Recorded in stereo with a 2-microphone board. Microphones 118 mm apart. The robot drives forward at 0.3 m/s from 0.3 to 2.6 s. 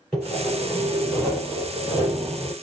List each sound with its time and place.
0.1 s sawing: 5° left (ahead or behind), 3 m